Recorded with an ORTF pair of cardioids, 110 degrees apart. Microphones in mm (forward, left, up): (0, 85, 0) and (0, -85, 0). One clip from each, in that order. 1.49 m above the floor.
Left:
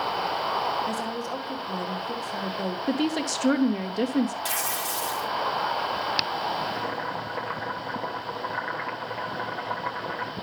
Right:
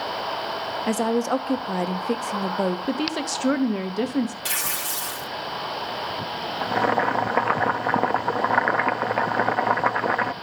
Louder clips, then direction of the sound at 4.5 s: Right 1 dB; 15° right.